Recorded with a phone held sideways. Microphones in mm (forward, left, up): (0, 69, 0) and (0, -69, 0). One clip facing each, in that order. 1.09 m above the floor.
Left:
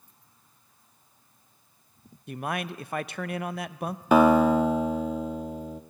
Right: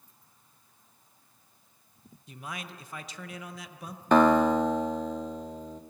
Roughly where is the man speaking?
Left.